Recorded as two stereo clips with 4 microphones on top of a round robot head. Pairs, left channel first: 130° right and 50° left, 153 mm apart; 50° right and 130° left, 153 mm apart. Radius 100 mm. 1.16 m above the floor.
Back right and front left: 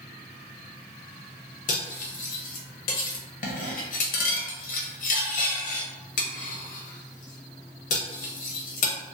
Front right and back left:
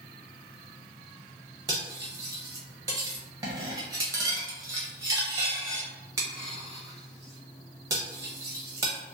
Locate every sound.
1.7 s cutlery clinking: 160° right, 0.5 m